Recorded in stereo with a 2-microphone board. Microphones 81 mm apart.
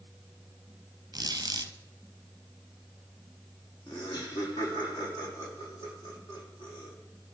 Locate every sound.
1.1 s a squeak: 55° right (ahead or behind), 0.8 m
3.9 s laughter: 70° left (ahead or behind), 5.5 m